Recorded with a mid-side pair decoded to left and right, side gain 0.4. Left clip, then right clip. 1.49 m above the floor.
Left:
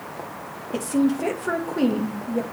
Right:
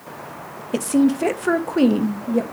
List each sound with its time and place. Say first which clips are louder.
0.7 s a woman speaking: right 4 dB; 50° right, 1.1 m